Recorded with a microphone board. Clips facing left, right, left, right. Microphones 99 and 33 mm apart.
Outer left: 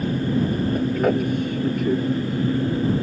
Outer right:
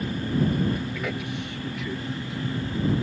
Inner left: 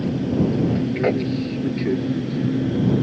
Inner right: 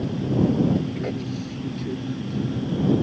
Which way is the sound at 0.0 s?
45° left (ahead or behind).